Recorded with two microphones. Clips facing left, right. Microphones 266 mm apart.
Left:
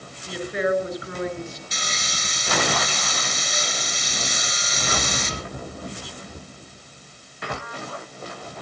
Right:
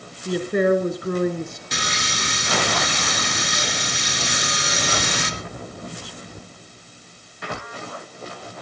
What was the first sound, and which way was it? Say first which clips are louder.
A woman speaking: right 6 dB; 55° right (ahead or behind).